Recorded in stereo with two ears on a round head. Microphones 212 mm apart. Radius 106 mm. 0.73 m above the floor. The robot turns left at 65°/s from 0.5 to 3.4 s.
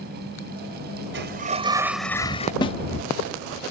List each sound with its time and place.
1.1 s a sliding door: 125° right; by 2.5 s 145° left
2.6 s a snare drum: 20° left (ahead or behind); by 2.8 s 25° left (ahead or behind)